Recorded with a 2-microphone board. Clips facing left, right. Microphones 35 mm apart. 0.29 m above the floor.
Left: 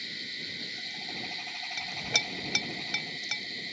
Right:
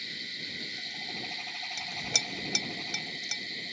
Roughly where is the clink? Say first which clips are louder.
Left 4 dB; left.